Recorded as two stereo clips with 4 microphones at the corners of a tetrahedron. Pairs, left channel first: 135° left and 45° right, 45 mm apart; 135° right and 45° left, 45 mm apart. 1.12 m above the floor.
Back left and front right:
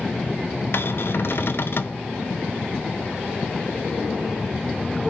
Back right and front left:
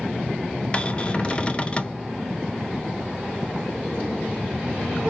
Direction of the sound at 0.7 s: 160° left.